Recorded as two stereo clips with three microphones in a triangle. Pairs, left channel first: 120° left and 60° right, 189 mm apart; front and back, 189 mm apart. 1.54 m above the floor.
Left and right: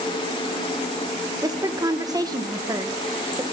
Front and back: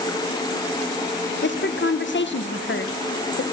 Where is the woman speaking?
10° left, 1.1 m.